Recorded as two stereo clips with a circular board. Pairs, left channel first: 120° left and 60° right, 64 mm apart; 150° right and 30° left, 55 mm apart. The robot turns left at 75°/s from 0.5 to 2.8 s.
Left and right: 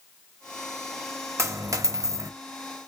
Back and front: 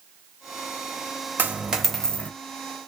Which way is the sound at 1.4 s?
25° right.